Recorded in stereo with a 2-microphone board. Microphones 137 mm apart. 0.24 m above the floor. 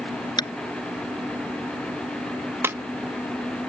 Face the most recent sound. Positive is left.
turn(degrees=-15)  # may be behind; listen again after turning